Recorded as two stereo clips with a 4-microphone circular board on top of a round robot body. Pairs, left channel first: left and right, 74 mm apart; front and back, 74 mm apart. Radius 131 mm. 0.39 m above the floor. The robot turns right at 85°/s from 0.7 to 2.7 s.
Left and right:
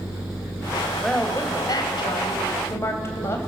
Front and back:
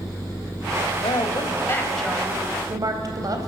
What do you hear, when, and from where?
1.0 s a woman speaking: straight ahead, 3 m; by 3.5 s 145° left, 3 m